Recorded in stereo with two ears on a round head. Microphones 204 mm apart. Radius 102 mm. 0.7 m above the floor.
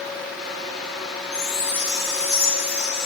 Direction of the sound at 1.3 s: 25° left (ahead or behind).